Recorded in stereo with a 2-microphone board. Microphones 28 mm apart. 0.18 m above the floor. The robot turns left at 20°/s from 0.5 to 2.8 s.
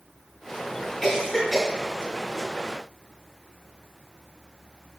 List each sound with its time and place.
1.0 s a cough: 15° left (ahead or behind), 1.1 m; by 1.7 s 10° left (ahead or behind), 1.1 m